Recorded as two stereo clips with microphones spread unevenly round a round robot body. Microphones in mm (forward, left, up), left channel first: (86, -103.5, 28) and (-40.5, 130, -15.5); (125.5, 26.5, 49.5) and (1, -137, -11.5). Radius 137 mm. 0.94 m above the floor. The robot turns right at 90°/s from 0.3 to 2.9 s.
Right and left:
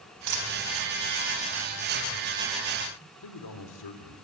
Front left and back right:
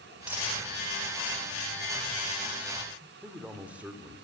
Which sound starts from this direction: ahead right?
A man speaking, at 3.2 s.